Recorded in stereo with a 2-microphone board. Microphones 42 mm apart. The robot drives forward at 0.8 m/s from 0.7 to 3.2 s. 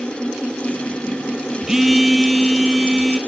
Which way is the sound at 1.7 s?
10° right (ahead or behind).